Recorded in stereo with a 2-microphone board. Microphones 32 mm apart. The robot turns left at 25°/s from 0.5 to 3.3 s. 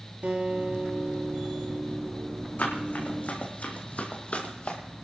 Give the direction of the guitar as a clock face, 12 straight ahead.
2 o'clock.